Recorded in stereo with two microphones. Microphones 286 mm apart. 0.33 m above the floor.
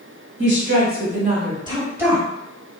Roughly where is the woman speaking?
Right.